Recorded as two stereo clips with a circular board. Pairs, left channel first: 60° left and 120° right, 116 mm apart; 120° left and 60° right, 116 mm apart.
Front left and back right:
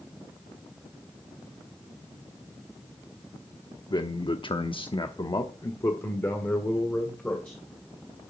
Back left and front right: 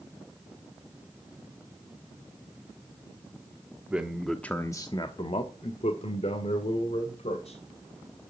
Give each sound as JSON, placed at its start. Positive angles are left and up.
{"t": 3.9, "sound": "a man speaking", "azimuth_deg": 15, "distance_m": 1.1}